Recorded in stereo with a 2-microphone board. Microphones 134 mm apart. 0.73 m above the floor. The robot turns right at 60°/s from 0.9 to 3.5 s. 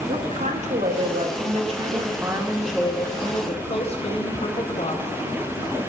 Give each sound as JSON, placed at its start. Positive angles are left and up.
{"t": 0.1, "sound": "a woman speaking", "azimuth_deg": -105, "distance_m": 1.8}